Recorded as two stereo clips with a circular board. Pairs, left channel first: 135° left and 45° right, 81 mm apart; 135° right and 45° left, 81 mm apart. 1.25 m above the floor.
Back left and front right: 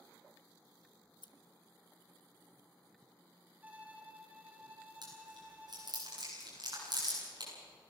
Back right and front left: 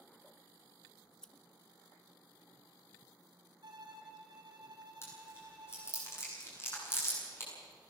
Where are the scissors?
145° left, 0.9 m.